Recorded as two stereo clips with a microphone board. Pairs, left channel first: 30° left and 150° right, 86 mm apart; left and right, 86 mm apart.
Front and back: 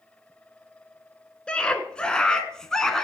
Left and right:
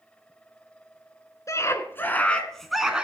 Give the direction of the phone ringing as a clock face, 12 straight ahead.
No phone ringing in this recording.